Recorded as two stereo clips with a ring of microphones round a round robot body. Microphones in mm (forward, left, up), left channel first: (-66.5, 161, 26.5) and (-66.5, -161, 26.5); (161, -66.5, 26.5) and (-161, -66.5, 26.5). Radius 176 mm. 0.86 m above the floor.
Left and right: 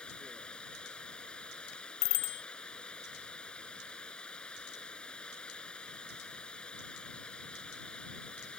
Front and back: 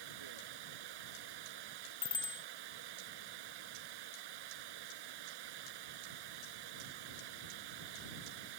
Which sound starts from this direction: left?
A bicycle bell, at 2.0 s.